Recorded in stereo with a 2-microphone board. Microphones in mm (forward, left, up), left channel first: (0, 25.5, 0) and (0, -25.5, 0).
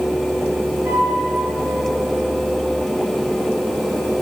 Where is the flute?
70° right (ahead or behind), 6 m.